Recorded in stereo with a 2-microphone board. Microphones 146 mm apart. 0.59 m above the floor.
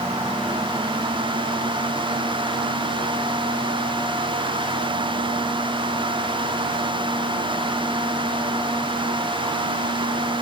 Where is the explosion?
I don't hear an explosion.